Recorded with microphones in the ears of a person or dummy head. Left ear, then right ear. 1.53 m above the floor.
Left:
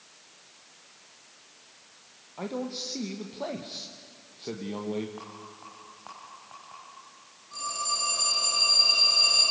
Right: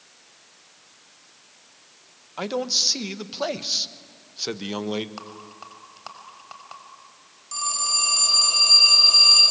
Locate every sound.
2.4 s a man speaking: 55° right (ahead or behind), 1.3 m
5.2 s a rattle: 70° right (ahead or behind), 4.5 m
7.5 s a phone ringing: 70° right (ahead or behind), 8.5 m